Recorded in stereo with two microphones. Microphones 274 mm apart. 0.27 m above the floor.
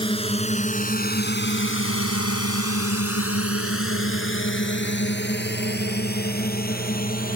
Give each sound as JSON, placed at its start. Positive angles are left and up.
{"t": 0.0, "sound": "a drone", "side_deg": 20}